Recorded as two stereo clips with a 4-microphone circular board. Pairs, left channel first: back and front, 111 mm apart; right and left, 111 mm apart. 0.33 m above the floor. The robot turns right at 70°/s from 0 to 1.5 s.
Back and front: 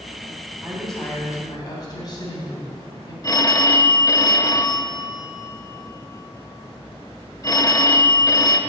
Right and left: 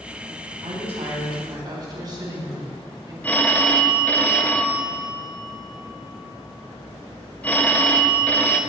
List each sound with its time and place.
0.6 s a woman speaking: 75° left, 2.5 m; by 3.1 s 135° left, 2.5 m
3.2 s a phone ringing: 155° right, 0.5 m